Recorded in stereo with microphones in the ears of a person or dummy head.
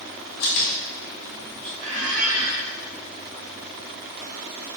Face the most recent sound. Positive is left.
turn(degrees=-60)  # may be behind; listen again after turning